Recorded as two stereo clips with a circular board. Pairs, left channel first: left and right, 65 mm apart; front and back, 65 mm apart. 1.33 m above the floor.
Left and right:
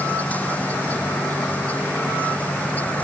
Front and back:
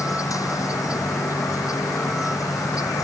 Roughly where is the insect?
Ahead left.